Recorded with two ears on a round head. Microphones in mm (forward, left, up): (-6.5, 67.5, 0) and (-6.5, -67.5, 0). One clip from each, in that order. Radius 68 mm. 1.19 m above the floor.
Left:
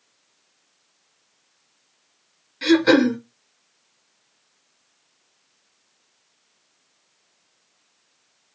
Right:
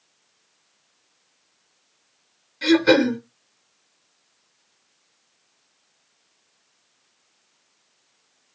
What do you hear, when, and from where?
2.6 s throat clearing: 10° left (ahead or behind), 2 m